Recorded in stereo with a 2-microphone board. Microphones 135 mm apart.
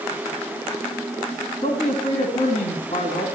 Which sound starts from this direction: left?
A man speaking, at 1.6 s.